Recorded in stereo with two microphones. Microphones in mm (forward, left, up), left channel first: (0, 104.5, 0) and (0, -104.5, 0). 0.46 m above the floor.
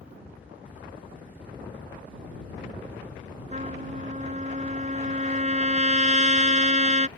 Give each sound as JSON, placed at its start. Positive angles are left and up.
{"t": 3.5, "sound": "a trumpet", "side_deg": -35}